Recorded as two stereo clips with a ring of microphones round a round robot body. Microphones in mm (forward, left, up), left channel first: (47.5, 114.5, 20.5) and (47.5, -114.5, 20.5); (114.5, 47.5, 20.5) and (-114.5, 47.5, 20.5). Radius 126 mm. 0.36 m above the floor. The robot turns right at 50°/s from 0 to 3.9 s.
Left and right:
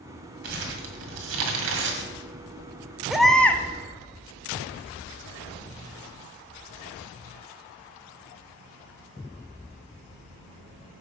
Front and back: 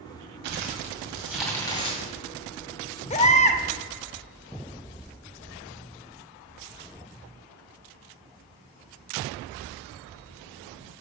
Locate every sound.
0.4 s crumpling: 140° right, 1.8 m; by 2.1 s 55° right, 1.8 m
3.1 s a baby crying: 5° right, 0.6 m; by 3.6 s 20° left, 0.6 m